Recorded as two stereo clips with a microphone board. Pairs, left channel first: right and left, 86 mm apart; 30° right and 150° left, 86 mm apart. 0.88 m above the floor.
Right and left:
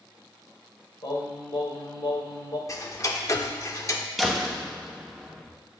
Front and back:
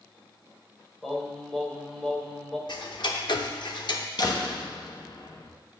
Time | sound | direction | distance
1.0 | singing | 110° right | 2.0 m
2.7 | ticking | 45° right | 0.7 m
4.2 | a door slam | straight ahead | 0.9 m